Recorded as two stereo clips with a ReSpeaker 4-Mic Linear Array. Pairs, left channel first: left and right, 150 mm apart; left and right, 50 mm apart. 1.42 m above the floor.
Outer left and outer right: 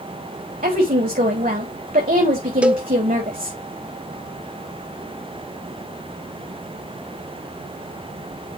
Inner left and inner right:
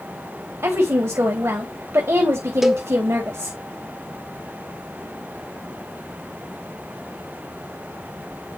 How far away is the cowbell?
About 0.7 m.